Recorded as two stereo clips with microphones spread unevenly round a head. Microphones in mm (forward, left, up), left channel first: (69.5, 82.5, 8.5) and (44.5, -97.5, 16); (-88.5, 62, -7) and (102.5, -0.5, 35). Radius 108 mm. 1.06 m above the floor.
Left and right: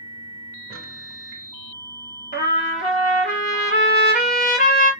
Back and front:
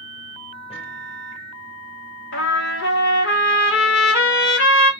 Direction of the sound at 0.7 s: 135° right.